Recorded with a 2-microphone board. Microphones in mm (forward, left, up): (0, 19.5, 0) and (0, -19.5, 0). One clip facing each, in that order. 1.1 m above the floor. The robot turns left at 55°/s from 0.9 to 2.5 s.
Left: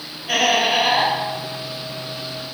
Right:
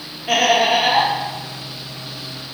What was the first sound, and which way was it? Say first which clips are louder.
Laughter: right 3 dB; 70° right (ahead or behind).